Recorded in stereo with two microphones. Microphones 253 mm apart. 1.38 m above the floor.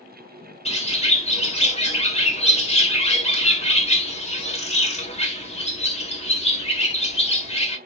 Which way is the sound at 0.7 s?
25° left (ahead or behind).